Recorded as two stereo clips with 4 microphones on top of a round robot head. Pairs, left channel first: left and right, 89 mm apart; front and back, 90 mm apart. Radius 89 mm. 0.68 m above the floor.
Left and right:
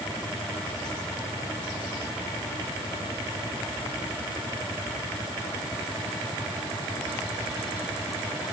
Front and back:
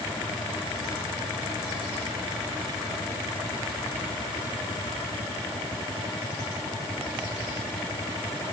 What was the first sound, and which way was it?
Only background noise.